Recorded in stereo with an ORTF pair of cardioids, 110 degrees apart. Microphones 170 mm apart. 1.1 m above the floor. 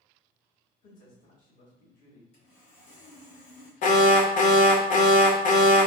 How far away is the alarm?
About 0.5 m.